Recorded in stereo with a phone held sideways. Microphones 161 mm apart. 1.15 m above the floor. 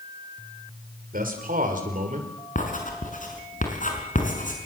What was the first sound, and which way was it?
A man speaking, 60° right (ahead or behind).